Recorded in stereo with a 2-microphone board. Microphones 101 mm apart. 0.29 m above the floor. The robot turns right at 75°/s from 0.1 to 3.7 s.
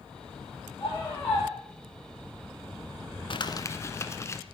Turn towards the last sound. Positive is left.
turn(degrees=155)